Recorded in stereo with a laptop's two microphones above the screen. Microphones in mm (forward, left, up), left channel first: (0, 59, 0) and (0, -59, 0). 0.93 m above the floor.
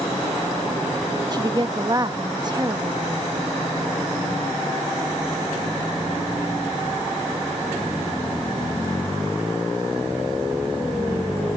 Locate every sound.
1.3 s a woman speaking: 35° right (ahead or behind)